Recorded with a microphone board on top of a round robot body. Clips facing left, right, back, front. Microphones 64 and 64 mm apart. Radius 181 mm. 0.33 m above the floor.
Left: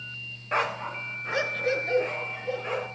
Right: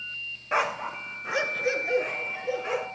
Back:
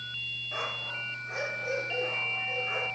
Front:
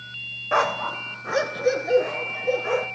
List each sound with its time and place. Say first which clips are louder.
0.5 s a dog barking: right 1 dB, front 15 dB; 5° right, 1.0 m